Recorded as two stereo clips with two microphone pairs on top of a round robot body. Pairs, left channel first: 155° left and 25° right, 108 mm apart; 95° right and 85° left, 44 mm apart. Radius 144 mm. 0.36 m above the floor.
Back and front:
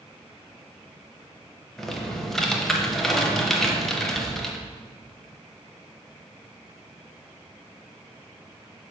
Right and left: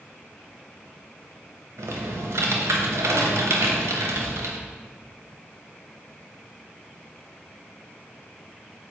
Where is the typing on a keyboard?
70° left, 0.7 m.